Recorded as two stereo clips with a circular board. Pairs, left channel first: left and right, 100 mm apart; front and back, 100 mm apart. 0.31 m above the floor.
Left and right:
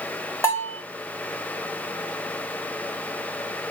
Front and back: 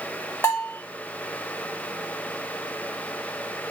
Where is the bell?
50° left, 1.7 m.